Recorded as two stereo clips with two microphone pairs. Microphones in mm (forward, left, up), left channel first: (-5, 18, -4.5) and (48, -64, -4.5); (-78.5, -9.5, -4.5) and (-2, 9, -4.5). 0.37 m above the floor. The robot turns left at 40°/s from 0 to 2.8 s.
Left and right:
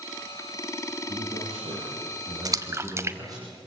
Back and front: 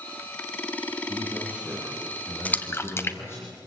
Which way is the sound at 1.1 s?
40° right.